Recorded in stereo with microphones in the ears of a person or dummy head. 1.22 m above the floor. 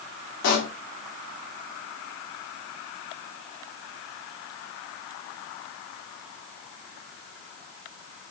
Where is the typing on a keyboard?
No typing on a keyboard in this recording.